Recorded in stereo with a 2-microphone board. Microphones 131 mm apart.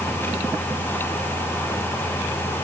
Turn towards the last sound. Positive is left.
No sound to turn to.